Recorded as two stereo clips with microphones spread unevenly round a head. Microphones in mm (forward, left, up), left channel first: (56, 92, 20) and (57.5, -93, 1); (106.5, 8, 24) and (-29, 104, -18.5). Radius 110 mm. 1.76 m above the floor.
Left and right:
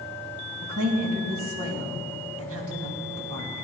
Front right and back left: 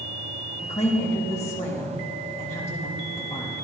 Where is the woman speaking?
95° right, 2.5 m.